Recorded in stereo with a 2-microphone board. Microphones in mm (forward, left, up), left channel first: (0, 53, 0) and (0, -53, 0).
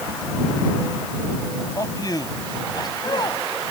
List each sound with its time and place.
1.8 s a man speaking: 35° left (ahead or behind); by 3.5 s 40° left (ahead or behind)